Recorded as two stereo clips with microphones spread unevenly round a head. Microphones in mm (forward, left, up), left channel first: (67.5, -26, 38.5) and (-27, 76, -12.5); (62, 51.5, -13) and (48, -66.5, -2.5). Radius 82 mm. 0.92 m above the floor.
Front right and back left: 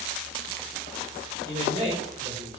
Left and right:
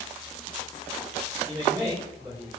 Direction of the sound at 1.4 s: Straight behind.